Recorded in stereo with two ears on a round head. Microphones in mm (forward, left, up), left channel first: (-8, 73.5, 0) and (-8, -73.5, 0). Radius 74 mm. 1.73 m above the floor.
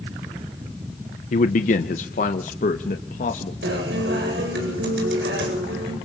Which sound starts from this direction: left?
A man speaking, at 1.3 s.